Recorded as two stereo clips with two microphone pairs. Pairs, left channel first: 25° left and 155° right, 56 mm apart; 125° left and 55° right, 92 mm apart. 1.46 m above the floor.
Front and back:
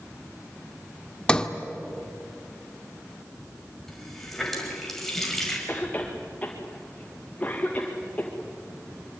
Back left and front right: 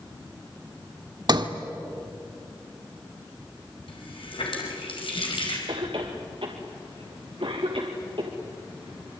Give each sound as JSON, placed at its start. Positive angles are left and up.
{"t": 1.3, "sound": "a sliding door", "azimuth_deg": -45, "distance_m": 1.5}
{"t": 3.9, "sound": "a running tap", "azimuth_deg": 105, "distance_m": 5.5}
{"t": 5.7, "sound": "a cough", "azimuth_deg": -40, "distance_m": 2.0}